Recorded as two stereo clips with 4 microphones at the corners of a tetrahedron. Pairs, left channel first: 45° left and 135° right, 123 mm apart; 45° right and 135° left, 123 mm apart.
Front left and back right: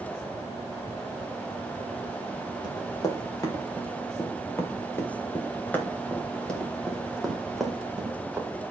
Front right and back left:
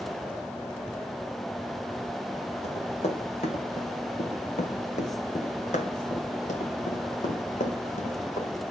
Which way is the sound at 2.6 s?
15° right.